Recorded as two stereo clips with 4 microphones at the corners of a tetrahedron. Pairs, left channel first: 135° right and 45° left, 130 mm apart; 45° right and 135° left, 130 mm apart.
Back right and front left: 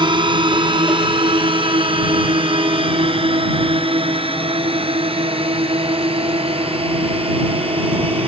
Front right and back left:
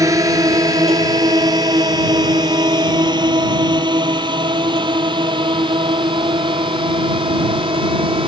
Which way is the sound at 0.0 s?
80° left.